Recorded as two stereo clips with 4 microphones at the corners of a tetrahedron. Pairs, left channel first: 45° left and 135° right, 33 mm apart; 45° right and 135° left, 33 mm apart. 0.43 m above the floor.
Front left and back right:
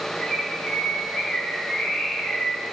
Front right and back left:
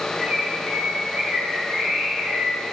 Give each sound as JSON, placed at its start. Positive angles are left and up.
{"t": 0.2, "sound": "a bird", "azimuth_deg": 100, "distance_m": 2.0}